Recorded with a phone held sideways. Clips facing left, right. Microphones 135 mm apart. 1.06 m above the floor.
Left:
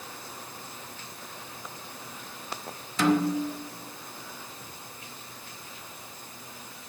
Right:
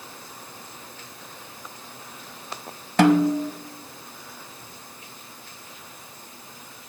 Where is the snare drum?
60° right (ahead or behind), 0.7 m.